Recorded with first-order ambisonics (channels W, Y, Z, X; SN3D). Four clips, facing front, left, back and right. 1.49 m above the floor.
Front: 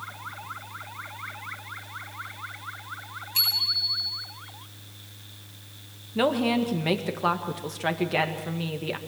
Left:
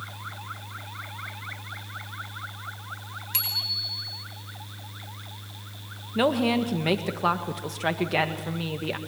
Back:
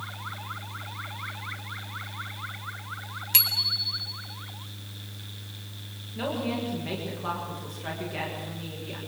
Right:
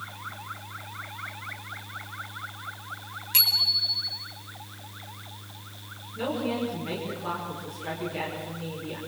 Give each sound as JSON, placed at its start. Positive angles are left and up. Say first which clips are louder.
{"t": 3.3, "sound": "a bicycle bell", "louder": "right 6 dB, front 1 dB", "azimuth_deg": -175, "distance_m": 3.5}
{"t": 6.2, "sound": "a woman speaking", "louder": "left 6 dB, front 7 dB", "azimuth_deg": 55, "distance_m": 1.9}